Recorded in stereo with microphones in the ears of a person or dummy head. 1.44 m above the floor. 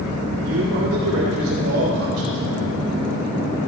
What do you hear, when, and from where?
0.4 s a man speaking: 65° right (ahead or behind), 2 m; by 2.4 s 85° right, 3.5 m